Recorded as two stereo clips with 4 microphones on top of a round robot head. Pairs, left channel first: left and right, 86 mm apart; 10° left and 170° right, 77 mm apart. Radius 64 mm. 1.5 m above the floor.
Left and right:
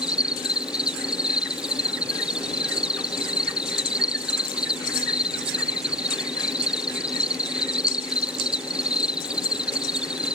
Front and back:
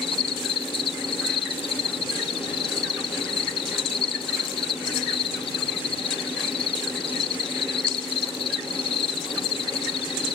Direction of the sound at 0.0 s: 10° right.